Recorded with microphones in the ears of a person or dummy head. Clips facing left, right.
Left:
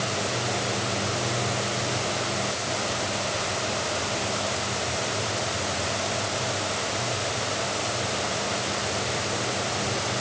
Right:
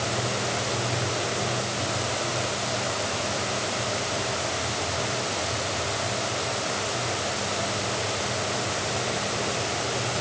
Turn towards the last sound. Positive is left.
No sound to turn to.